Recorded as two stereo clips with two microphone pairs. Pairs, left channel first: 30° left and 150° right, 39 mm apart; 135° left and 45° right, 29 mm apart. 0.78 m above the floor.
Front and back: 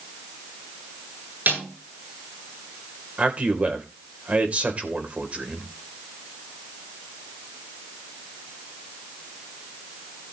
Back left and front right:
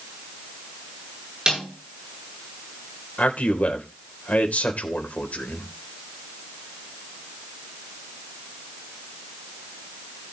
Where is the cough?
I don't hear a cough.